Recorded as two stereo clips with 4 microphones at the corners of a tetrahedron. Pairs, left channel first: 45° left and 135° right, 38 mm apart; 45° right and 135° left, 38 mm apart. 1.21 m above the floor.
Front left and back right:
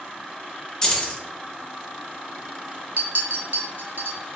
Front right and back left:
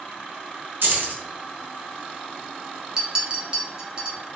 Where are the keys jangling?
115° left, 0.9 m.